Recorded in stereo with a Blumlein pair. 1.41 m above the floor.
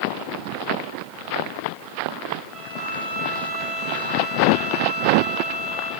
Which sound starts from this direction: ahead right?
A violin, at 2.5 s.